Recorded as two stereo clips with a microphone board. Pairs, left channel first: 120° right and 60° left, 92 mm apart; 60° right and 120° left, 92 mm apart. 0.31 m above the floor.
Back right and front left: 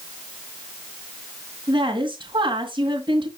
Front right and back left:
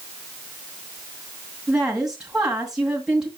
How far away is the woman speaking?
About 2 m.